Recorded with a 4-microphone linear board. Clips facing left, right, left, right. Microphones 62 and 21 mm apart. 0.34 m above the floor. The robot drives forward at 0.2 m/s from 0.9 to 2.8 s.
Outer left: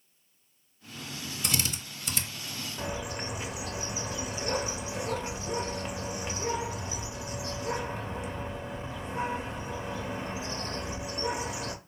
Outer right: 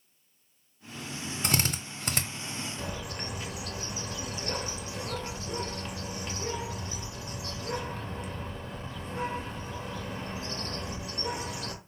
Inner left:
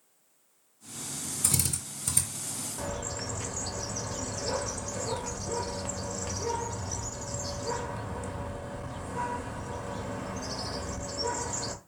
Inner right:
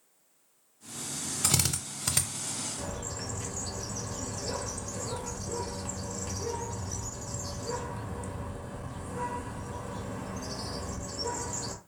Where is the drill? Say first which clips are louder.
Outer right 3 dB, inner right 3 dB; 45° right (ahead or behind), 0.6 m; by 2.2 s 50° right (ahead or behind), 0.5 m.